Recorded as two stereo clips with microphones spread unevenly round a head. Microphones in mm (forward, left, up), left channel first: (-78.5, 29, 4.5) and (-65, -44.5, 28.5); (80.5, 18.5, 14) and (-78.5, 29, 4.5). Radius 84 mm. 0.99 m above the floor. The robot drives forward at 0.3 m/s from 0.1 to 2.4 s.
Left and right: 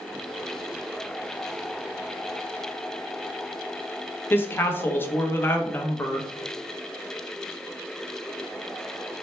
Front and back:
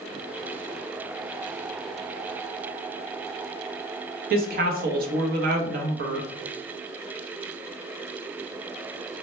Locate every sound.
4.3 s a woman speaking: 155° left, 0.8 m